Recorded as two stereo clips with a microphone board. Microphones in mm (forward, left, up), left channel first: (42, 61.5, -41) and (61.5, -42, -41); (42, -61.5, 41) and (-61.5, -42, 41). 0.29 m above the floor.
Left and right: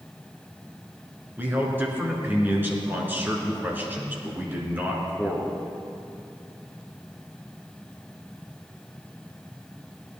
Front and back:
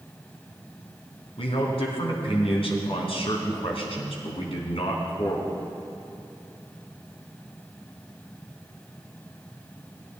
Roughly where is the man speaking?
Ahead.